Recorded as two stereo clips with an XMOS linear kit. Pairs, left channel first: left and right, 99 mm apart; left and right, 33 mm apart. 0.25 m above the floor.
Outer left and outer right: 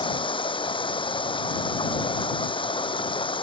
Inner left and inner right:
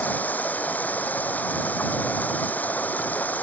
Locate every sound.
0.0 s running water: 55° left (ahead or behind)